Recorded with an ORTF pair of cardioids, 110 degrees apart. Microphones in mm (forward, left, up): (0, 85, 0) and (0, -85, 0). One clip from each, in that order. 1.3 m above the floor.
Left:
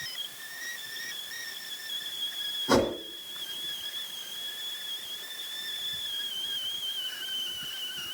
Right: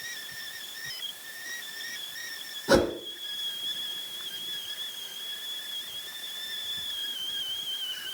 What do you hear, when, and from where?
2.7 s a whoosh: 25° right, 9.5 m